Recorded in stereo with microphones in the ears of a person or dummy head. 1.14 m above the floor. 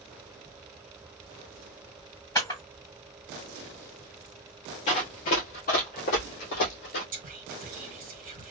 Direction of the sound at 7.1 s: 45° right (ahead or behind).